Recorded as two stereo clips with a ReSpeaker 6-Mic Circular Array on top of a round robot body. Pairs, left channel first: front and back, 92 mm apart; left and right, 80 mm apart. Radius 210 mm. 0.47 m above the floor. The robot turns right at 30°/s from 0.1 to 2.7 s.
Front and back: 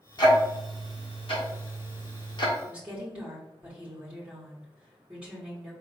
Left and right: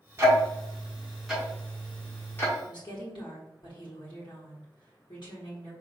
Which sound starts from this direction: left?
A woman speaking, at 2.6 s.